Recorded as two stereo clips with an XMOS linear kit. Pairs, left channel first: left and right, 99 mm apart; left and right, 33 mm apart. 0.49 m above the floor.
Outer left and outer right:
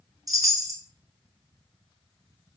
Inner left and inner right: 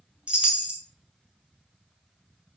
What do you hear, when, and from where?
0.3 s a chime: 35° right (ahead or behind), 0.6 m